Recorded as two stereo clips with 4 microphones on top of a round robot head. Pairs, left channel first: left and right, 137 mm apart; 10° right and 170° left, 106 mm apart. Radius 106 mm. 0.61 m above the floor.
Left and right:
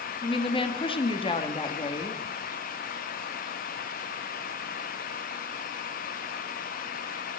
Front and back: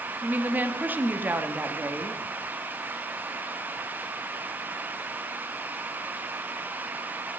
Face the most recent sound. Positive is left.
turn(degrees=105)